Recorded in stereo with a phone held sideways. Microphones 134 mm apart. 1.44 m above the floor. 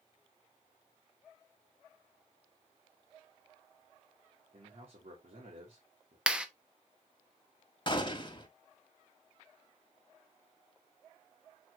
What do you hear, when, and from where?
4.5 s a man speaking: 75° right (ahead or behind), 3 m
6.3 s a clap: 5° right (ahead or behind), 1.0 m
7.9 s a gunshot: 35° left (ahead or behind), 1.6 m